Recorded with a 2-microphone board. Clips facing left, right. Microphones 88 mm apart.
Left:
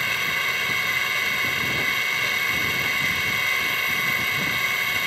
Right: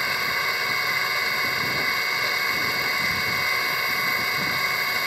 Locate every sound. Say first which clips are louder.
0.0 s an engine running: right 1 dB; 15° right (ahead or behind)